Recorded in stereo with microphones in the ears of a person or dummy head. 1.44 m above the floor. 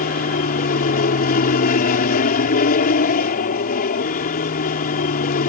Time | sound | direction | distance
0.0 | an aircraft | 45° left (ahead or behind) | ?